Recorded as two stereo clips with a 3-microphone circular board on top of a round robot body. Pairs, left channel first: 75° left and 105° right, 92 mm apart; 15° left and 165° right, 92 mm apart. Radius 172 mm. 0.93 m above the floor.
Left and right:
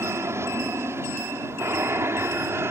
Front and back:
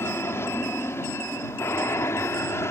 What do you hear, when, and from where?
0.0 s an aircraft: 45° right